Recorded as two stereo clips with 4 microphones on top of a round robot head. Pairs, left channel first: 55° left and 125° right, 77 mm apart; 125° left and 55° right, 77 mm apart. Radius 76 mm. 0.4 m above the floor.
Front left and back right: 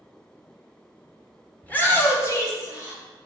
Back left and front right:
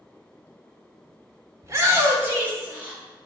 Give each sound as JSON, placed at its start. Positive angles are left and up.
{"t": 1.6, "sound": "a shout", "azimuth_deg": -10, "distance_m": 1.6}